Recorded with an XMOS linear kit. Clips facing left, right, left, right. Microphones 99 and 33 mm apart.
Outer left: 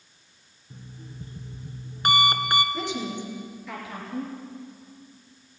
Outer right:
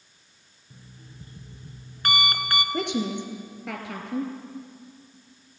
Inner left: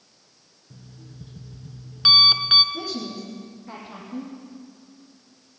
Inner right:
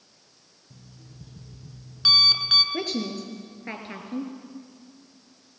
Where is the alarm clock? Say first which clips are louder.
Outer left 5 dB, inner left 4 dB; 20° left (ahead or behind), 1.4 m.